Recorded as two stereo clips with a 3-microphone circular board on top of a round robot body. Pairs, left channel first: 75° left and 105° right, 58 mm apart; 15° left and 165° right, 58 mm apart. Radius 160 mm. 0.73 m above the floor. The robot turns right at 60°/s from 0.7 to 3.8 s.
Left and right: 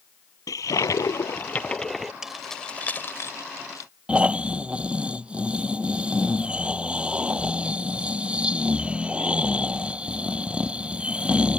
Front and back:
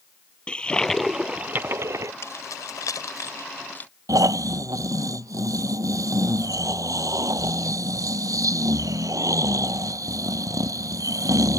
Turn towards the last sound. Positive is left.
turn(degrees=-175)